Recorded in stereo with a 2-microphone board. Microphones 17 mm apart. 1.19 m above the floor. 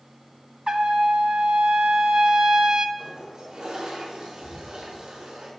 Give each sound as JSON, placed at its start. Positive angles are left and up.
{"t": 0.7, "sound": "a trumpet", "side_deg": -50, "distance_m": 1.1}
{"t": 3.0, "sound": "a toilet flushing", "side_deg": -80, "distance_m": 5.5}